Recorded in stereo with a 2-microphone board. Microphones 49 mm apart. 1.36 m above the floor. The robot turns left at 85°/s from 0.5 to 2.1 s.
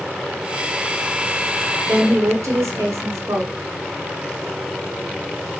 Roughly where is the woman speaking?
Right.